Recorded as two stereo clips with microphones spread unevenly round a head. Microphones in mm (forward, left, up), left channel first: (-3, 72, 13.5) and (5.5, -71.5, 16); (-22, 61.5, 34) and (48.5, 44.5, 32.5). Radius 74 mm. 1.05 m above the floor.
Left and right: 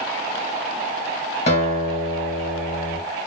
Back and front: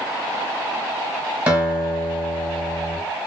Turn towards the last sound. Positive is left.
turn(degrees=55)